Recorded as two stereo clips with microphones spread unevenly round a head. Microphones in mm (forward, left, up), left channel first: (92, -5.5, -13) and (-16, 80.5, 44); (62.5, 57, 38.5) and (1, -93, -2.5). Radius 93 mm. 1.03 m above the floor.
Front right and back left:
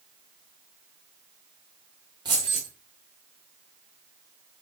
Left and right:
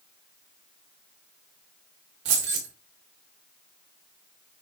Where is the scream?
No scream in this recording.